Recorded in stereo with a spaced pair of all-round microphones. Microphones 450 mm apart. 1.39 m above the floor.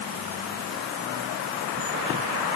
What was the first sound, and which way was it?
Only background noise.